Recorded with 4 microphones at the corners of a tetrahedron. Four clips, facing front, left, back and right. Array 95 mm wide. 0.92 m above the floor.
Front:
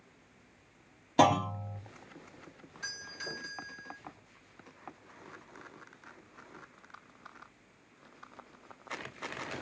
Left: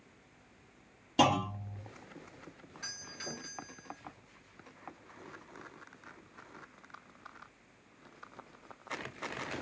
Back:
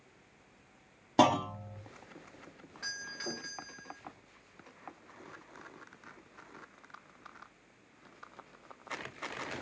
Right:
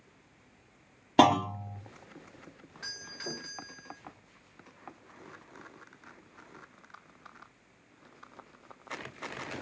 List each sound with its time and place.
1.2 s a clunk: 105° right, 1.4 m
2.8 s a doorbell: 135° right, 1.9 m